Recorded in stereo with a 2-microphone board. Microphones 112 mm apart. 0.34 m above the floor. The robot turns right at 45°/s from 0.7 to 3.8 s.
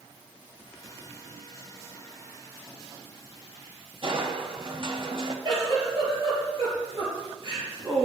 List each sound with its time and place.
4.0 s crushing: 50° right (ahead or behind), 1.1 m
5.5 s a giggle: 45° right (ahead or behind), 4 m